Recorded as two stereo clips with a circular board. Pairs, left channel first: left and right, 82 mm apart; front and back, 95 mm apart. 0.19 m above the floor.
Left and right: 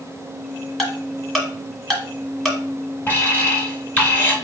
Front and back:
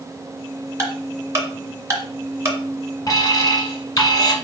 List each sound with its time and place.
0.8 s ticking: 175° left, 1.5 m
3.1 s an alarm: 35° left, 1.9 m